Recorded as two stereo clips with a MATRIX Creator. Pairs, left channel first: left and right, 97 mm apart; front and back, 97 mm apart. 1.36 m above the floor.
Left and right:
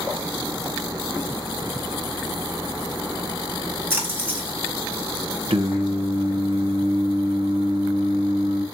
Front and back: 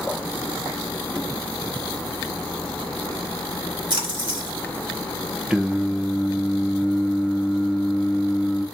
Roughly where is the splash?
Behind right.